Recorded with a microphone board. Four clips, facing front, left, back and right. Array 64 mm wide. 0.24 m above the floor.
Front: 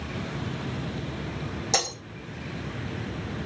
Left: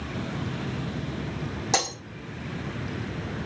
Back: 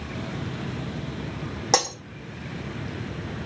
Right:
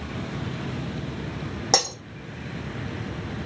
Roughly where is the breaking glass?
Behind right.